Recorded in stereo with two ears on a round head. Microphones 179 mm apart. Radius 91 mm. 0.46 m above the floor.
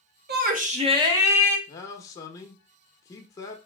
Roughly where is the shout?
Right.